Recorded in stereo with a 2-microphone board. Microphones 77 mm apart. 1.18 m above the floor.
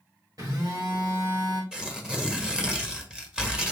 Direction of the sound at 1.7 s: 10° right (ahead or behind).